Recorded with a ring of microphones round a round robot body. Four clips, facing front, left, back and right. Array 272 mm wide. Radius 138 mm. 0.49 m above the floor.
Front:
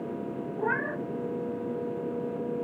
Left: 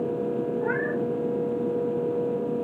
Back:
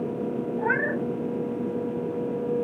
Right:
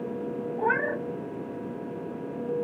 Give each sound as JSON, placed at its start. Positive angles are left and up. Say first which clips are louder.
{"t": 0.6, "sound": "a cat meowing", "louder": "left 1 dB, back 3 dB", "azimuth_deg": -120, "distance_m": 1.6}